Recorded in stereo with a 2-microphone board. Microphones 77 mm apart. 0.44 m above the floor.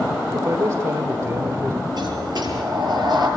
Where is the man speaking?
45° right (ahead or behind), 1.5 m.